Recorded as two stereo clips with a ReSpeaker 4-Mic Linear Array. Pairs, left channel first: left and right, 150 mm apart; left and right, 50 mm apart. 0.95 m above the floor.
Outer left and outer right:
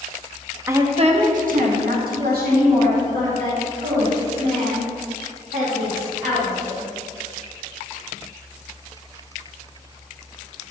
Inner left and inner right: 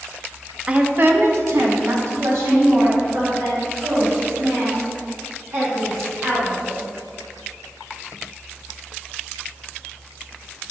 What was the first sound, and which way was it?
A woman speaking, 15° right (ahead or behind).